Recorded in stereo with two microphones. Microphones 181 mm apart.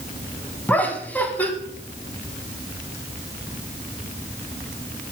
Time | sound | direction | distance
0.7 | laughter | 10° left (ahead or behind) | 1.3 m